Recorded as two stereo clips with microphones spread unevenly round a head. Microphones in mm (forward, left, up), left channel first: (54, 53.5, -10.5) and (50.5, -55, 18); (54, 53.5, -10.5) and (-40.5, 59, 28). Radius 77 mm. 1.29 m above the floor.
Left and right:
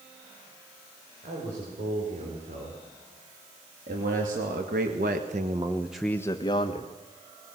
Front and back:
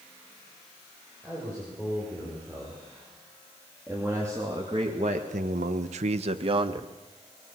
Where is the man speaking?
90° right, 6.5 m; by 6.9 s 135° left, 1.9 m.